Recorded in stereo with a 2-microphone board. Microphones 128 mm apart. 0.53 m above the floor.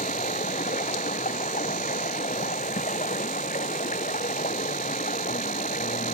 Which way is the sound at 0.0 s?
90° left.